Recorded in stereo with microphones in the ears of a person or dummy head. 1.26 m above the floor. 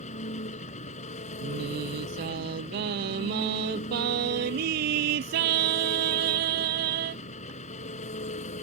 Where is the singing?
60° right (ahead or behind).